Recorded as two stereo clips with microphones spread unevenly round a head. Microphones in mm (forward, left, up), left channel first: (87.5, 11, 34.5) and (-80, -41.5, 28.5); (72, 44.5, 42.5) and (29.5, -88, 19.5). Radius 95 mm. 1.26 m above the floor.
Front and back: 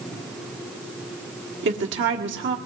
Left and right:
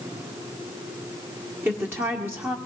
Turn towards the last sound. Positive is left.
turn(degrees=180)